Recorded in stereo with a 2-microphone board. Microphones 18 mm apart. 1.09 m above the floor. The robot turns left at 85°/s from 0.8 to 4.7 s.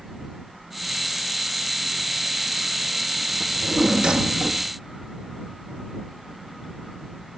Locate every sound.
3.4 s a drawer: straight ahead; by 4.7 s 110° right